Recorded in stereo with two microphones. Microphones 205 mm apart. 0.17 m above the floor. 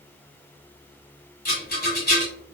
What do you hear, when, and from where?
1.4 s a rattle: 50° left (ahead or behind), 2 m